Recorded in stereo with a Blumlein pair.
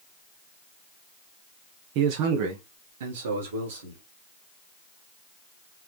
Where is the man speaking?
45° right, 1.2 m; by 4.0 s 65° right, 3 m.